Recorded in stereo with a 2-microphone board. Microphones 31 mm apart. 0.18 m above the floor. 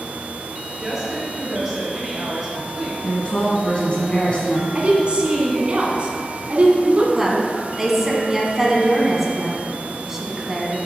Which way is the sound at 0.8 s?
10° right (ahead or behind).